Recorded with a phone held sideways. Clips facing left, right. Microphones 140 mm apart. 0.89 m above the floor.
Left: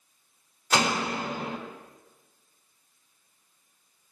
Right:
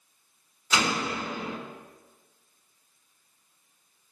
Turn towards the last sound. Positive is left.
turn(degrees=75)  # may be behind; listen again after turning